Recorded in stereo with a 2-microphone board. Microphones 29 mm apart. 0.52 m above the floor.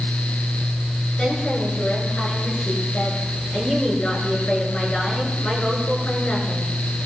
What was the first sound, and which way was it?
A woman speaking, 40° left (ahead or behind).